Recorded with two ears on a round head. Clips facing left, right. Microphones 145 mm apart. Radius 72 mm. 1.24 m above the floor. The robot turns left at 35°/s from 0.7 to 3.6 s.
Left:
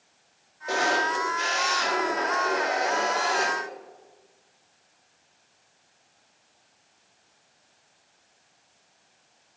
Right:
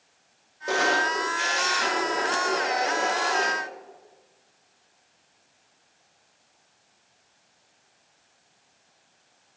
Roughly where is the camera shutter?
Right.